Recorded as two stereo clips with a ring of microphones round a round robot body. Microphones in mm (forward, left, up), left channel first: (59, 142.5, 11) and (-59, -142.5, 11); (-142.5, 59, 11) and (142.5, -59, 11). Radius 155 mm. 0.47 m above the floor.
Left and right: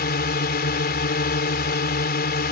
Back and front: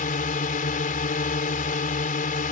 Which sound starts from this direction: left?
A drone, at 0.0 s.